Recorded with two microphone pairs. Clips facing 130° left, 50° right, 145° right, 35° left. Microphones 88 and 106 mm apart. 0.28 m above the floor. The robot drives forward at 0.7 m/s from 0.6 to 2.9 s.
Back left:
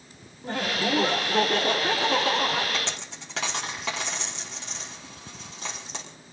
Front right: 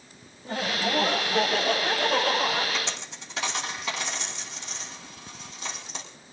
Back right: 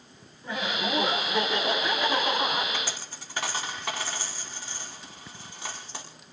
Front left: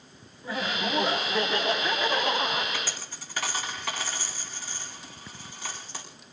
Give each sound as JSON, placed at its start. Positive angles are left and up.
{"t": 0.4, "sound": "laughter", "azimuth_deg": 120, "distance_m": 3.5}
{"t": 2.7, "sound": "a dropped coin", "azimuth_deg": 150, "distance_m": 4.0}